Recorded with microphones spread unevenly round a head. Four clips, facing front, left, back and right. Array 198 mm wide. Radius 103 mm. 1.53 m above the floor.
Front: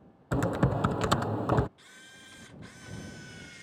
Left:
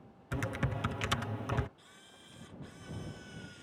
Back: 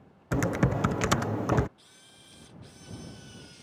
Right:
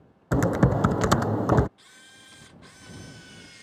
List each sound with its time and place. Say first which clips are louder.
0.3 s typing on a keyboard: right 15 dB, back 1 dB; 100° right
1.8 s a camera shutter: right 4 dB, front 5 dB; 50° right